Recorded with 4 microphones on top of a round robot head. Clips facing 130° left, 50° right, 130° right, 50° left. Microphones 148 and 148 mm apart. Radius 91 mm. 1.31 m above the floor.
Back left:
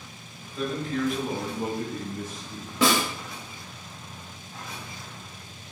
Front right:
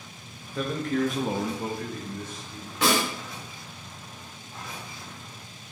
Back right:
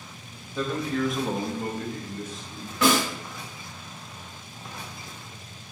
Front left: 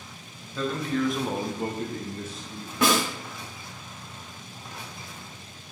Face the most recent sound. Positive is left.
turn(degrees=125)